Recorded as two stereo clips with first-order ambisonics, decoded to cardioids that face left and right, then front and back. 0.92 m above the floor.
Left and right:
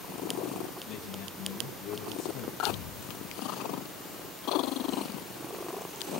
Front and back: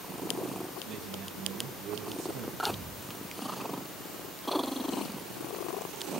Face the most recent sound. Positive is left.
turn(degrees=100)